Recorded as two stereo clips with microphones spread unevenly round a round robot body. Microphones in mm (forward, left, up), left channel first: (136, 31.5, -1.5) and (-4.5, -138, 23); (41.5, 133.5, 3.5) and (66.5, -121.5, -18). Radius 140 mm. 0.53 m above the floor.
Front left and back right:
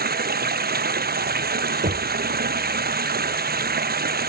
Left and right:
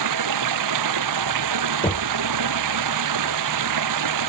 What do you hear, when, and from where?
0.0 s running water: 85° right
1.8 s knocking: 170° left